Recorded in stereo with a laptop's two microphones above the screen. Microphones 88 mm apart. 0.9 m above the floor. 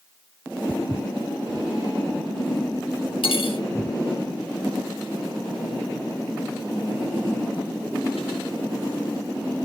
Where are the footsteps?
15° right (ahead or behind), 1.6 m; by 3.9 s 30° right (ahead or behind), 5.5 m.